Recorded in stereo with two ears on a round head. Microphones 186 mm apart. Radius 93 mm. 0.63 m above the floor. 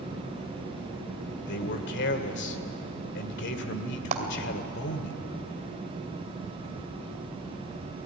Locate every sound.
1.5 s a man speaking: 60° left (ahead or behind), 2.5 m
4.1 s a clap: 35° right (ahead or behind), 2.5 m